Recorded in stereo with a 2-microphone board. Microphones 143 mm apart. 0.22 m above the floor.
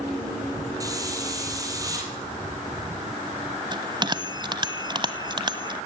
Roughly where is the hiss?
Right.